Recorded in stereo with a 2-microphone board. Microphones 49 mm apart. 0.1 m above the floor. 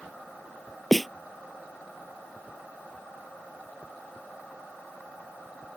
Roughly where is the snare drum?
Centre.